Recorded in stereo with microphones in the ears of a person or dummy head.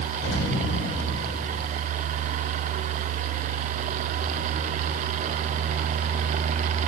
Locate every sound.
0.2 s an explosion: 70° left (ahead or behind), 6 m